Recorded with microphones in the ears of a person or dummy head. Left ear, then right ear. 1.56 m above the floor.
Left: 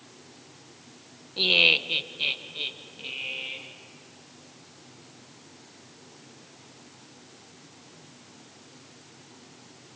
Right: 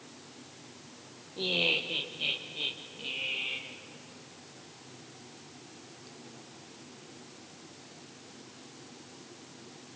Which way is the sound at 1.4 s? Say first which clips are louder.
Left 9 dB; 70° left (ahead or behind).